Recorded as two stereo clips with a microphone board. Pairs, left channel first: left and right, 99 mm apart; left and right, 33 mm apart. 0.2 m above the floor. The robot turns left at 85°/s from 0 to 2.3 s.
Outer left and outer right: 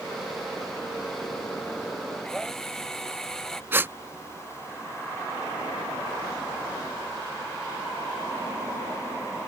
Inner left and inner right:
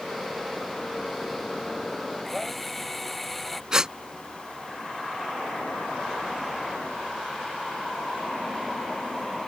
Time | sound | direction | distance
2.2 | a drill | 10° left (ahead or behind) | ?
3.7 | a gasp | 25° right (ahead or behind) | ?